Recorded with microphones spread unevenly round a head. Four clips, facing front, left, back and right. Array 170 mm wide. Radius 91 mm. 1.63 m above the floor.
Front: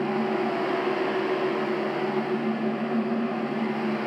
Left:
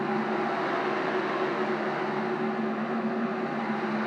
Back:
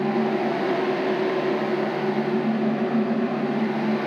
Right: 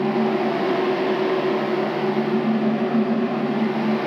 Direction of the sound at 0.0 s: 110° right.